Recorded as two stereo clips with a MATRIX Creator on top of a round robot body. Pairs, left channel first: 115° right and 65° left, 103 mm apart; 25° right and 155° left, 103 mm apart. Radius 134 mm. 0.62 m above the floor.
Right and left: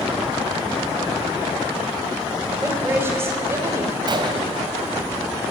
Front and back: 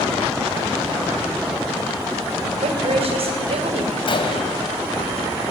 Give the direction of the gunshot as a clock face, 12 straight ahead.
11 o'clock.